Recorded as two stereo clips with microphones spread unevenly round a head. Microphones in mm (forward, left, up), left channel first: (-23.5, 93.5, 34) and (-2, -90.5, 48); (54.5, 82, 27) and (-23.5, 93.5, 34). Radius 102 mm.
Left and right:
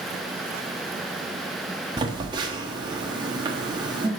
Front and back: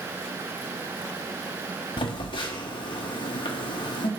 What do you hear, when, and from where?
2.0 s a phone buzzing: 20° right, 0.9 m